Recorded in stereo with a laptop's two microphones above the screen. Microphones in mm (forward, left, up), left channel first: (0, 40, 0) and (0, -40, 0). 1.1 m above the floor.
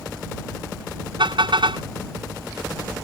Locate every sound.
1.2 s a car horn: 85° right